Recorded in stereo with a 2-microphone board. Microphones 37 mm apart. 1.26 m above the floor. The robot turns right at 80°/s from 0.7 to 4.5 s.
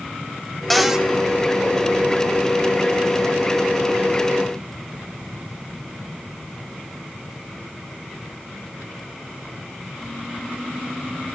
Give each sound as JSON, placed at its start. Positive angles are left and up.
{"t": 0.7, "sound": "a cupboard door", "side_deg": 10, "distance_m": 1.4}